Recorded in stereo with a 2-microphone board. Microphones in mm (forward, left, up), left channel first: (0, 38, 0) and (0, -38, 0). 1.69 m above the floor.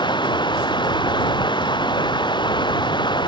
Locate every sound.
0.0 s running water: 80° left